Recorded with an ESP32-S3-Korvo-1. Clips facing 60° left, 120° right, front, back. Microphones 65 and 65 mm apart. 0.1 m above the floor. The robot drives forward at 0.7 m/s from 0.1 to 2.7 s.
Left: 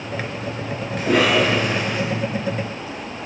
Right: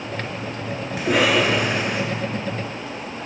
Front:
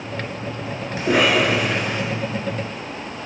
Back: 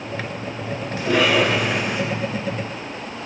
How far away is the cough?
About 1.3 m.